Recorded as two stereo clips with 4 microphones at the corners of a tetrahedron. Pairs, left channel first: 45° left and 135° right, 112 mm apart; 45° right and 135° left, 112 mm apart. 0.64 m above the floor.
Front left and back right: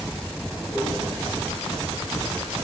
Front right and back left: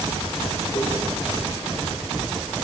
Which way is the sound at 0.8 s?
80° right.